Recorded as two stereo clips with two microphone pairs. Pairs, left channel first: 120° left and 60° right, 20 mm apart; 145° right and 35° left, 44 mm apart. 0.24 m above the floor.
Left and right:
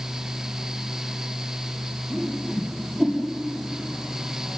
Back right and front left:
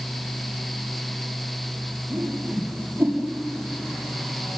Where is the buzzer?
I don't hear a buzzer.